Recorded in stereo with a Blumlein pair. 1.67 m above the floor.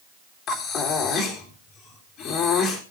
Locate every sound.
0.5 s breathing: 30° left, 3.5 m